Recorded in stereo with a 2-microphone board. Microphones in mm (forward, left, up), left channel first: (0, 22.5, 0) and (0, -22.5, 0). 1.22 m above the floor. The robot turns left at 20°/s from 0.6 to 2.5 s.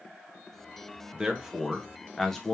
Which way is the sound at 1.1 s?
15° right (ahead or behind).